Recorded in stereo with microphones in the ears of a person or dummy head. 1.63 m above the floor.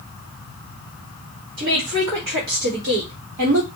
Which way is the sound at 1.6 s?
85° right.